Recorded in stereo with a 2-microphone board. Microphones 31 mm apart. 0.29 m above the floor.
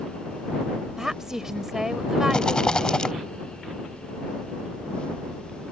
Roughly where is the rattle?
Left.